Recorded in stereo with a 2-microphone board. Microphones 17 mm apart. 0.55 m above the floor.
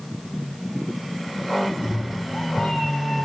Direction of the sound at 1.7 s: 70° left (ahead or behind).